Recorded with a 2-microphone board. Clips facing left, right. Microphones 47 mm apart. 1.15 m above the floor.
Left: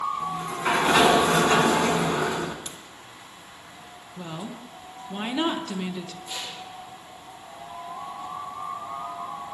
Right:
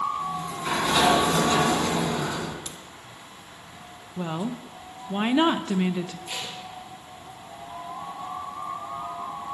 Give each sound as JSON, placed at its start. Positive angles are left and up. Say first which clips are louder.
{"t": 0.2, "sound": "a sliding door", "louder": "left 2 dB", "side_deg": 40, "distance_m": 2.5}
{"t": 2.6, "sound": "a crack", "louder": "even", "side_deg": 20, "distance_m": 2.5}
{"t": 4.2, "sound": "a woman speaking", "louder": "right 6 dB", "side_deg": -25, "distance_m": 0.7}
{"t": 6.3, "sound": "tape being pulled", "louder": "right 1 dB", "side_deg": -60, "distance_m": 4.5}